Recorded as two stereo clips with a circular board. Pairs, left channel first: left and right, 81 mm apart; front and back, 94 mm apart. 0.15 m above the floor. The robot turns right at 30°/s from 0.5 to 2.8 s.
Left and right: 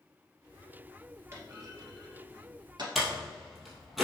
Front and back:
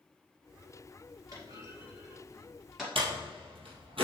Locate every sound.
1.3 s a clunk: 140° right, 2.5 m; by 2.9 s 95° right, 2.5 m
3.0 s a door slam: straight behind, 2.5 m